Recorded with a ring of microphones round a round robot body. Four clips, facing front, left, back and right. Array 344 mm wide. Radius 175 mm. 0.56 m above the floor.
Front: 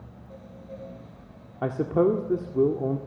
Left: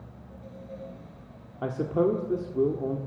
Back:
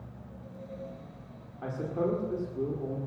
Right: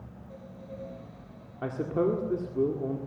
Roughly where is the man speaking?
Ahead.